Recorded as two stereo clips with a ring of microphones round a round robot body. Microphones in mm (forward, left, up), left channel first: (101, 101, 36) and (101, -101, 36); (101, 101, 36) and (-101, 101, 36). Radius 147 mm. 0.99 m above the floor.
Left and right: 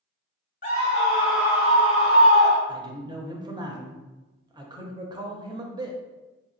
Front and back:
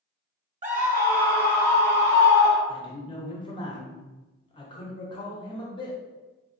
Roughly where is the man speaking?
Ahead right.